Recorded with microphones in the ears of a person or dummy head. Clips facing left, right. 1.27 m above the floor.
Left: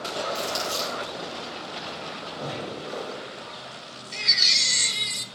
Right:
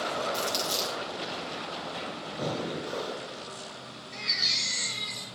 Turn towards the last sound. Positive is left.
turn(degrees=45)  # may be behind; listen again after turning